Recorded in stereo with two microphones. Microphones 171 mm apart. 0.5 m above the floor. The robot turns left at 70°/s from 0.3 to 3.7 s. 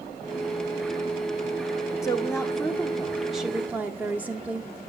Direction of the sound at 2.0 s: 20° left (ahead or behind).